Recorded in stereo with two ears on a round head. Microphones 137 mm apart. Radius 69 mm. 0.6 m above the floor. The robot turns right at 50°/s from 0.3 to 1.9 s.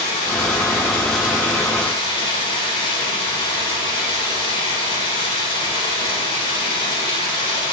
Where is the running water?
60° left, 2 m; by 7.7 s 140° left, 2 m.